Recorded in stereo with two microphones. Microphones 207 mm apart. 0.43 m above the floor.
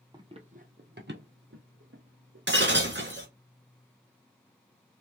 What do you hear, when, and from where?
0.1 s running footsteps: 20° right (ahead or behind), 0.8 m; by 2.5 s 75° right (ahead or behind), 1.6 m
2.5 s breaking glass: 60° right (ahead or behind), 1.4 m